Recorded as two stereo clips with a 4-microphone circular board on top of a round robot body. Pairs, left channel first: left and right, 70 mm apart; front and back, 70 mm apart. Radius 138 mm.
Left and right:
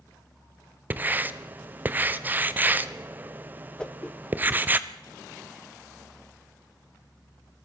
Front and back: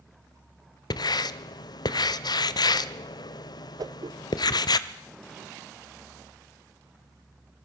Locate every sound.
0.9 s writing: 25° right, 0.7 m
3.8 s a whoosh: 165° left, 1.3 m